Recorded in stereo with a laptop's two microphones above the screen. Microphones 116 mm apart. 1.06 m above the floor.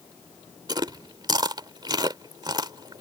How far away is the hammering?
No hammering in this recording.